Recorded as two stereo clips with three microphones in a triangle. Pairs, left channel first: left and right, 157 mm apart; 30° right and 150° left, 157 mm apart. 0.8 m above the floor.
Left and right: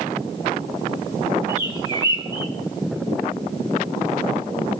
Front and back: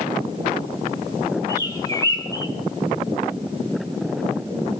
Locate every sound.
1.5 s a bird: 30° left, 2.0 m